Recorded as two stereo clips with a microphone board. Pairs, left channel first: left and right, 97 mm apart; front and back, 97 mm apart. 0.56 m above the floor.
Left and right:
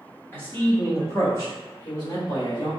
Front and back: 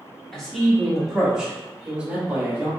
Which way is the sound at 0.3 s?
75° left.